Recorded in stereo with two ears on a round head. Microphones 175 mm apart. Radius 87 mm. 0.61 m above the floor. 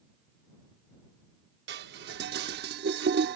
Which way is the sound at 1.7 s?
55° right (ahead or behind).